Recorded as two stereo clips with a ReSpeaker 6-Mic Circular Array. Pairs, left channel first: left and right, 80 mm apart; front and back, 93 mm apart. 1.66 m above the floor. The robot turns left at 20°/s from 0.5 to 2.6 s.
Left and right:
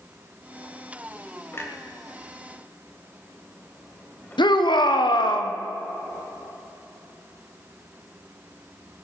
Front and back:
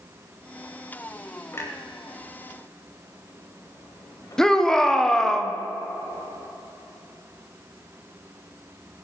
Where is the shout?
85° left, 1.2 m.